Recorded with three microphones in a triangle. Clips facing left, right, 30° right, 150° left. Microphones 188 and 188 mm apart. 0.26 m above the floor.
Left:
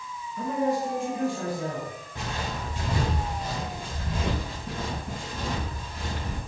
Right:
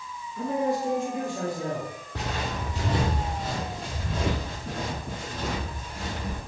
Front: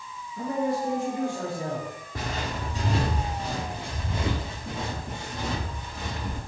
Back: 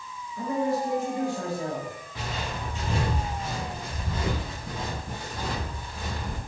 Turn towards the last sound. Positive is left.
turn(degrees=-100)